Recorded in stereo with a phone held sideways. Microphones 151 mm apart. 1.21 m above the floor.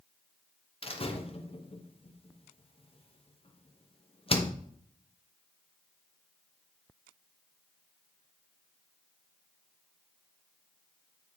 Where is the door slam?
40° left (ahead or behind), 0.9 m.